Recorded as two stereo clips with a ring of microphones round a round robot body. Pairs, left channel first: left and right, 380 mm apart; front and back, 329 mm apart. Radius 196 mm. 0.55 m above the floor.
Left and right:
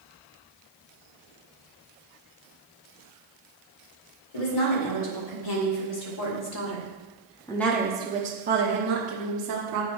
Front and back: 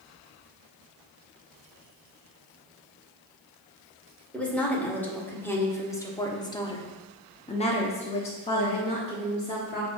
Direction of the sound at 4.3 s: 85° left.